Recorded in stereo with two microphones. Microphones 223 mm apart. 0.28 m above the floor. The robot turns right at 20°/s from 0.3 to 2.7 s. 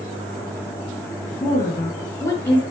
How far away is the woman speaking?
About 3.5 m.